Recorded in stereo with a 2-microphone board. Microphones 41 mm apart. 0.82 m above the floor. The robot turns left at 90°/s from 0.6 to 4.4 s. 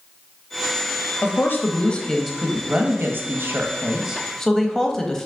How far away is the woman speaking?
About 0.6 m.